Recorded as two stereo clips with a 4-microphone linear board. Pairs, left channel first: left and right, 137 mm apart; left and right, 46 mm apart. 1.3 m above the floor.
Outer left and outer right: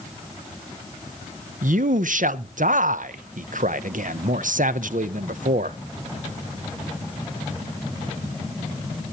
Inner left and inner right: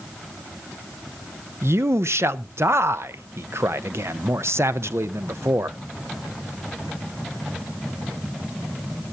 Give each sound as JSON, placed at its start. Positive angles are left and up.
{"t": 1.6, "sound": "a man speaking", "side_deg": -75, "distance_m": 0.7}